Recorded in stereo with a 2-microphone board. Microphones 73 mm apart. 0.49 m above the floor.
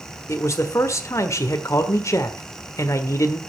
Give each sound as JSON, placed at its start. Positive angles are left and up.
{"t": 0.3, "sound": "a man speaking", "side_deg": 40, "distance_m": 1.5}